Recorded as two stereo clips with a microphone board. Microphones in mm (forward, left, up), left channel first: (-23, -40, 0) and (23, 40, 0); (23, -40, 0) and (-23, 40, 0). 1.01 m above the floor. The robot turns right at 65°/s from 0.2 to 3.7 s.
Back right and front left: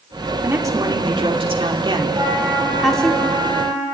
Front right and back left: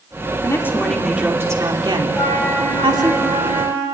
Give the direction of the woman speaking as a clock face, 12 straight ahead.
12 o'clock.